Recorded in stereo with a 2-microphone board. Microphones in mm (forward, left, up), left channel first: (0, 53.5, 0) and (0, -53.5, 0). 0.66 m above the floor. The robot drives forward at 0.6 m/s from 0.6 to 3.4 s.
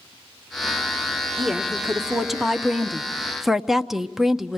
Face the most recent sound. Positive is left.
turn(degrees=-5)  # may be behind; listen again after turning